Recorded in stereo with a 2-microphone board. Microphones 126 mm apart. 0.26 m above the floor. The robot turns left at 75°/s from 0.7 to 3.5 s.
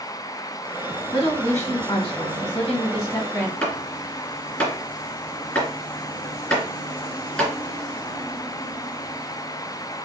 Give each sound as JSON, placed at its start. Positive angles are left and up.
{"t": 1.1, "sound": "a woman speaking", "azimuth_deg": -175, "distance_m": 2.5}
{"t": 3.6, "sound": "chopping", "side_deg": 5, "distance_m": 3.0}